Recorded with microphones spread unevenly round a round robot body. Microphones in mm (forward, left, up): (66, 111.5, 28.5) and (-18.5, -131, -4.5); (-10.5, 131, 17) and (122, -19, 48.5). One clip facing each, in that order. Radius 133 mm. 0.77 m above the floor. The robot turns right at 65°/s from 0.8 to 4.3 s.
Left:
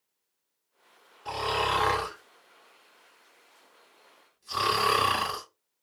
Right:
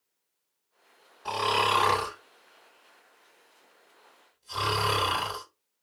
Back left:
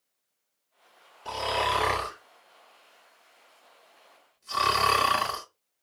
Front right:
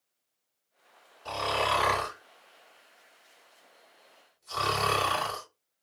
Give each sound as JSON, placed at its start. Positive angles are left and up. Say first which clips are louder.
{"t": 1.2, "sound": "snoring", "louder": "right 1 dB, even", "azimuth_deg": -120, "distance_m": 2.0}